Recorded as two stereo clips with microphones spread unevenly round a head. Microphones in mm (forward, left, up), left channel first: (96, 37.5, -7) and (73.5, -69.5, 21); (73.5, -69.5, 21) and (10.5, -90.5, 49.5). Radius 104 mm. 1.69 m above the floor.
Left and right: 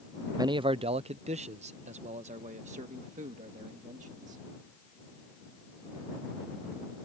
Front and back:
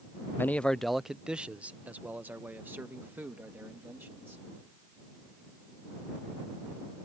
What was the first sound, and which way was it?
A man speaking, 50° right.